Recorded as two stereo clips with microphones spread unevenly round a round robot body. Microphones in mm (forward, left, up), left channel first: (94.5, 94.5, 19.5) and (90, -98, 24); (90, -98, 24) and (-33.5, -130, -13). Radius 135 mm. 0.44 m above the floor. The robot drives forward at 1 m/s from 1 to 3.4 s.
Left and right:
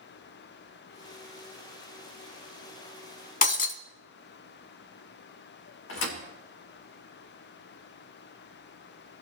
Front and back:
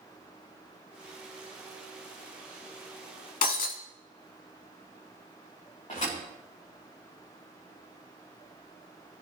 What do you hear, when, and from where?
3.4 s breaking glass: 40° left, 1.1 m
5.9 s a thud: 80° left, 3 m